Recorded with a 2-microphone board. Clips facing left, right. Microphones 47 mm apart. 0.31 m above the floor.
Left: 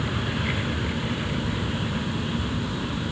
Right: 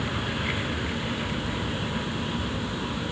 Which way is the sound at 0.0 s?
Centre (ahead or behind).